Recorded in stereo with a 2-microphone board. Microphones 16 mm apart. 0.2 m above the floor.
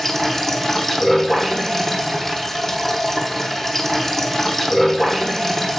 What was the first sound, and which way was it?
Running water, 25° left (ahead or behind).